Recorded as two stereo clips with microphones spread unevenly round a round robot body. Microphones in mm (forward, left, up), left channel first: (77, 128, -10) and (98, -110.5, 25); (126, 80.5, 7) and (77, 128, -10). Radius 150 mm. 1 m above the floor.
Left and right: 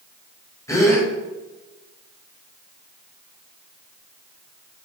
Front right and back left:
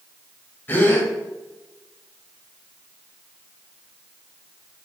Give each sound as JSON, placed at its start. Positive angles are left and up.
{"t": 0.7, "sound": "a gasp", "azimuth_deg": 15, "distance_m": 2.5}